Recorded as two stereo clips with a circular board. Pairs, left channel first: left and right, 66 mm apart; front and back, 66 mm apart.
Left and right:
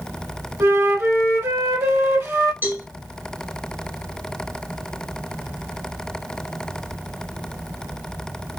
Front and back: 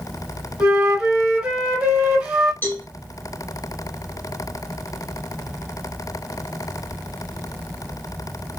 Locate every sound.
0.6 s a flute: 115° right, 1.2 m
2.6 s a cowbell: 45° right, 1.4 m